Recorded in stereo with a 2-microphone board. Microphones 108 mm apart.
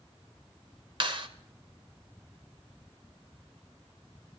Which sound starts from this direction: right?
A clap, at 1.0 s.